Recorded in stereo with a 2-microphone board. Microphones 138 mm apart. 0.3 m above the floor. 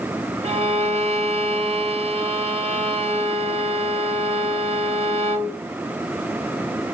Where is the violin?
50° right (ahead or behind), 0.7 m.